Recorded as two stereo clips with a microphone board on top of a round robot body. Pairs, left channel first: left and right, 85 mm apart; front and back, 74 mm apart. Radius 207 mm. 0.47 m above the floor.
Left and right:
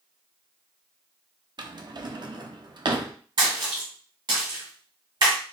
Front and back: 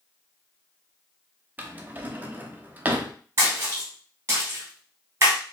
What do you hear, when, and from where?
1.6 s a drawer: 115° right, 0.7 m
3.4 s a splash: 125° right, 0.8 m